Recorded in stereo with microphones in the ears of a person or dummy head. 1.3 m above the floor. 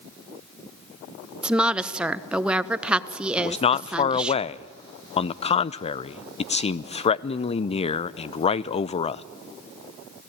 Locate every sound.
1.4 s a woman speaking: 10° right (ahead or behind), 0.8 m
3.4 s a man speaking: 35° left (ahead or behind), 0.5 m